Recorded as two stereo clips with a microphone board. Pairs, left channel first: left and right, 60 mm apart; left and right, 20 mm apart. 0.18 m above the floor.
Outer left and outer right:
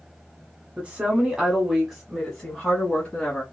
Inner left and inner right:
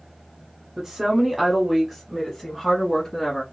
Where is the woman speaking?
20° right (ahead or behind), 1.3 m; by 3.4 s 20° left (ahead or behind), 1.7 m.